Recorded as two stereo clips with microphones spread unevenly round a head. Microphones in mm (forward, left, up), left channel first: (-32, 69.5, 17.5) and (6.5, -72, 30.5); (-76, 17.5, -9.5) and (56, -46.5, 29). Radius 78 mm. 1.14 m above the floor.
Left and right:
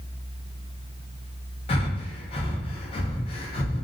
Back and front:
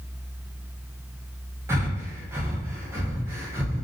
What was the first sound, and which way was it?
Breathing, 50° left.